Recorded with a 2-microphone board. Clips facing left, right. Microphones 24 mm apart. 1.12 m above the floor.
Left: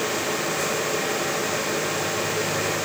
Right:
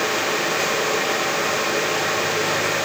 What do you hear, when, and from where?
Only background noise.